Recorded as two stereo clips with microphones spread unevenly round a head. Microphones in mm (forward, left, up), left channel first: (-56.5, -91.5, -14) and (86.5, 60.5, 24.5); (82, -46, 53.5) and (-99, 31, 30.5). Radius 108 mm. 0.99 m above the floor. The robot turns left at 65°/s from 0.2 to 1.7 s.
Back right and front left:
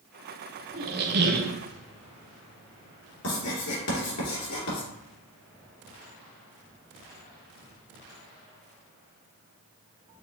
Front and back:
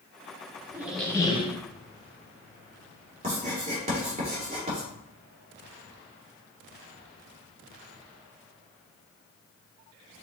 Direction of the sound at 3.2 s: 145° right.